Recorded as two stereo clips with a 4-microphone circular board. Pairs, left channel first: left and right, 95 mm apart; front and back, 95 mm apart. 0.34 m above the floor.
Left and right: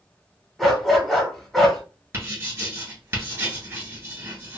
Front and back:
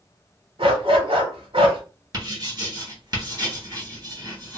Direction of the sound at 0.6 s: Straight behind.